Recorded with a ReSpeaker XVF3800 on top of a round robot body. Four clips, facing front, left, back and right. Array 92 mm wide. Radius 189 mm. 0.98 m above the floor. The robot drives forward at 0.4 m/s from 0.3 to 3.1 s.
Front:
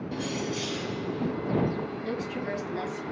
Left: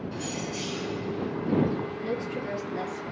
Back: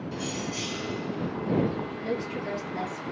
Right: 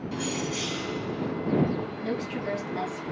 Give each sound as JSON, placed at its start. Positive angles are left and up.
{"t": 0.1, "sound": "keys jangling", "azimuth_deg": -95, "distance_m": 2.0}
{"t": 2.0, "sound": "a woman speaking", "azimuth_deg": -120, "distance_m": 2.0}